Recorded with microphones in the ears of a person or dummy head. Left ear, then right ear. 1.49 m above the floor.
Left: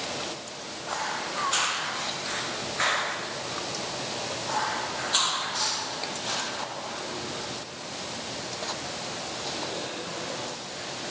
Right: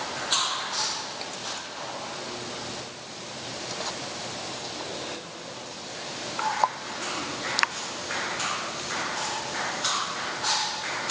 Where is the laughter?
I don't hear laughter.